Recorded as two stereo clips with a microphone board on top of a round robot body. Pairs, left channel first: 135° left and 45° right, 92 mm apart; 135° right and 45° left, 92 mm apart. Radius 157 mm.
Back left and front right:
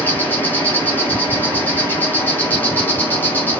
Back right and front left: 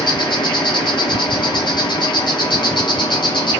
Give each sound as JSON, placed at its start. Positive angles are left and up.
{"t": 0.0, "sound": "an insect", "azimuth_deg": -160, "distance_m": 1.1}